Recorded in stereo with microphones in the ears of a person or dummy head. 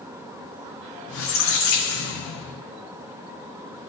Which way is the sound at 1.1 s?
55° left (ahead or behind).